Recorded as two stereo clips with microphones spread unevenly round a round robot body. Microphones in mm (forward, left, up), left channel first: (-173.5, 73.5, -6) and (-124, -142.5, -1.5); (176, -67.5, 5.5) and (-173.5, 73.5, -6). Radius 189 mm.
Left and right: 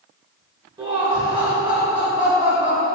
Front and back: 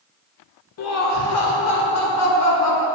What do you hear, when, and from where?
0.8 s laughter: 15° right, 0.9 m